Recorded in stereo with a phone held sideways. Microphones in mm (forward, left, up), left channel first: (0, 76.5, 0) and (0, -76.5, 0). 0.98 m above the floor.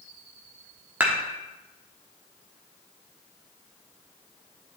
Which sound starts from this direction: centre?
Dishes clattering, at 1.0 s.